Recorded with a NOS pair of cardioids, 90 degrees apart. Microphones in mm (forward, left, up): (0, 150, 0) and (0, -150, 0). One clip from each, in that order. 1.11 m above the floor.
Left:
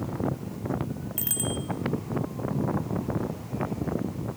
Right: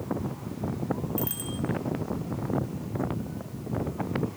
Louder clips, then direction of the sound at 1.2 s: Left 3 dB; 30° left.